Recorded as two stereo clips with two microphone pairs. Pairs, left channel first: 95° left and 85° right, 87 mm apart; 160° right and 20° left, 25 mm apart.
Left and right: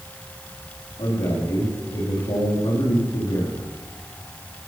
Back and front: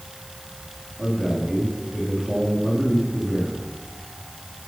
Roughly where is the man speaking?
Left.